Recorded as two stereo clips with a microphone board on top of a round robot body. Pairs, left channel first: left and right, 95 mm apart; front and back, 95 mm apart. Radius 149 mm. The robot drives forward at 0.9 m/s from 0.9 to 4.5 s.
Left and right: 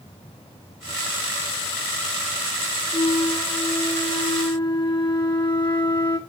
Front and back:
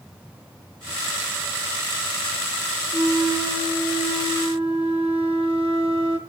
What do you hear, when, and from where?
2.9 s a flute: 115° left, 0.7 m; by 6.2 s 160° left, 1.8 m